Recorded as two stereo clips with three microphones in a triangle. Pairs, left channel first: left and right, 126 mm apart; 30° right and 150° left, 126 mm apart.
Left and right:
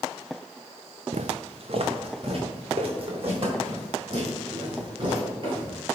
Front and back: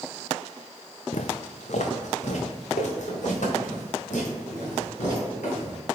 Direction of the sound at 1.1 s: 60° right.